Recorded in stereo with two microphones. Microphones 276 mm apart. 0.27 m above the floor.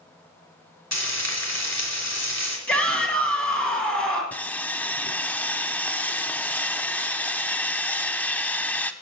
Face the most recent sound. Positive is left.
turn(degrees=5)  # may be behind; listen again after turning